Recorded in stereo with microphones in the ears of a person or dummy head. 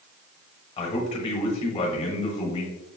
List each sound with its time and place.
0.8 s a man speaking: 30° left (ahead or behind), 1.1 m